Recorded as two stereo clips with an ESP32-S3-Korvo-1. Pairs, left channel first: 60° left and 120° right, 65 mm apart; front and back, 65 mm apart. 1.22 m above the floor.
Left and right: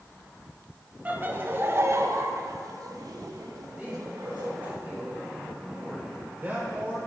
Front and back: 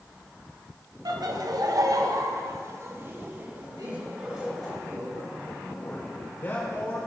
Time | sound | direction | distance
1.1 | laughter | 175° left | 1.7 m
3.7 | a man speaking | 175° left | 6 m
5.6 | a man speaking | 55° right | 5 m